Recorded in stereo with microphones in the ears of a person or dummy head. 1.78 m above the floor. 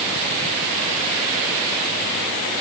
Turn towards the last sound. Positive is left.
No sound to turn to.